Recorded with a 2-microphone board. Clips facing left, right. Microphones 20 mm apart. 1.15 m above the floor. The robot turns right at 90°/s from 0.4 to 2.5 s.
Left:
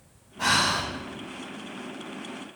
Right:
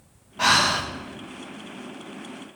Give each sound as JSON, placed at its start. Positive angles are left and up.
{"t": 0.4, "sound": "breathing", "azimuth_deg": -100, "distance_m": 0.8}